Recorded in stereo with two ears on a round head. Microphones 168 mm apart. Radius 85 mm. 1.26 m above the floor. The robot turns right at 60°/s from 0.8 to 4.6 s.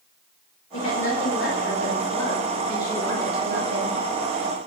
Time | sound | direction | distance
0.7 | a woman speaking | 70° left | 1.9 m